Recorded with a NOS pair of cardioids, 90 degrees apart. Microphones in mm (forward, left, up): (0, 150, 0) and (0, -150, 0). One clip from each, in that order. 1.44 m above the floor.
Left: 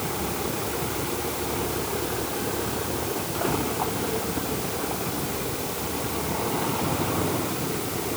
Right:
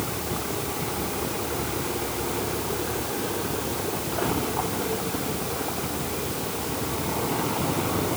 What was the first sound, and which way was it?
Only background noise.